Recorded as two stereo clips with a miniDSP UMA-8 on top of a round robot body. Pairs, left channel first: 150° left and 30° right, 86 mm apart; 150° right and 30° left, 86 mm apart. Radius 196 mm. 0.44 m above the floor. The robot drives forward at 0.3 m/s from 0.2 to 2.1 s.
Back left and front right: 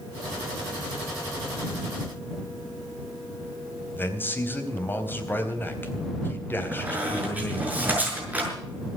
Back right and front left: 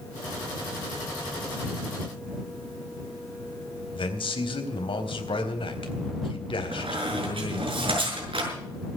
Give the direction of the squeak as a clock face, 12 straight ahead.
11 o'clock.